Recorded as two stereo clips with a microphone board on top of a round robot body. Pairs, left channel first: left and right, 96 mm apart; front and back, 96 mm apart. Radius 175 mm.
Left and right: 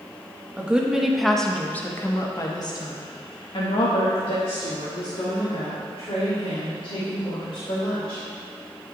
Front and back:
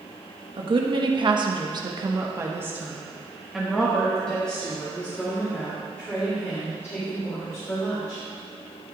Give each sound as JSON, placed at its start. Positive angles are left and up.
{"t": 0.6, "sound": "a woman speaking", "azimuth_deg": -165, "distance_m": 1.6}